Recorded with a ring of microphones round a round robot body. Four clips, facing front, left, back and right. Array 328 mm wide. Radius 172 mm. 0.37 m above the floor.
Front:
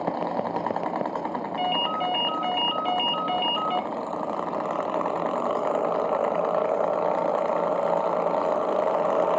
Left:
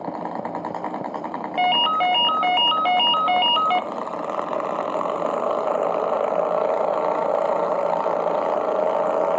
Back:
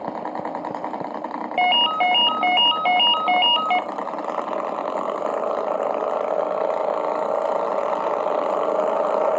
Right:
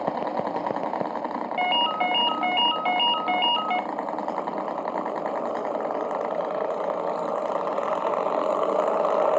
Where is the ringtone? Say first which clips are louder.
Left 5 dB, back 8 dB; 150° left, 0.7 m.